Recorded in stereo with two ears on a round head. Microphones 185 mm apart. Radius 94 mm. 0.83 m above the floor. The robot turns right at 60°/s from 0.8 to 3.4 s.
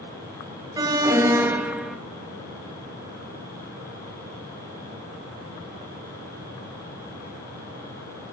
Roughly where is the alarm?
Centre.